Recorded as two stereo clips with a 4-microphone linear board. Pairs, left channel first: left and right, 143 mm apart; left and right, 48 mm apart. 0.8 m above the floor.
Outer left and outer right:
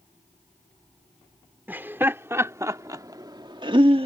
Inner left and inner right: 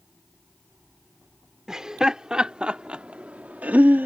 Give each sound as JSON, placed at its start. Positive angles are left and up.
{"t": 1.7, "sound": "laughter", "side_deg": -15}